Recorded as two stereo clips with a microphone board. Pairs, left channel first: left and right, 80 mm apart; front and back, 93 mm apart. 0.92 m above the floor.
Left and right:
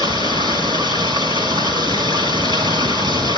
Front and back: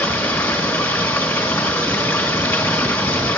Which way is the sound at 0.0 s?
70° right.